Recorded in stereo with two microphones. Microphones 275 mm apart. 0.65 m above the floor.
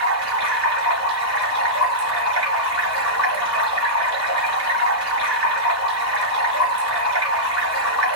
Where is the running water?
75° left (ahead or behind), 3.5 m.